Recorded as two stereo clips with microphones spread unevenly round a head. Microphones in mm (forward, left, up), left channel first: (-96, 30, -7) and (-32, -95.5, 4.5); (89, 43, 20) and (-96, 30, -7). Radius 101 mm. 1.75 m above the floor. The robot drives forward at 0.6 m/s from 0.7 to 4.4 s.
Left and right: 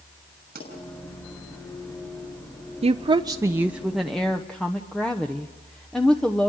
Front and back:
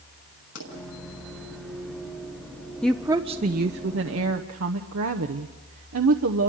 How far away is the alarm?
No alarm in this recording.